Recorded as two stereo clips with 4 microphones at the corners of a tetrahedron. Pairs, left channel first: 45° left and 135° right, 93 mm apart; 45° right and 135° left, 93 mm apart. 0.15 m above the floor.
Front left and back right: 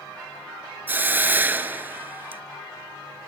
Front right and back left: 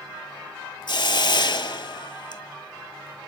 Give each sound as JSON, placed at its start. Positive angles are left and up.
{"t": 0.9, "sound": "a hiss", "azimuth_deg": -70, "distance_m": 0.7}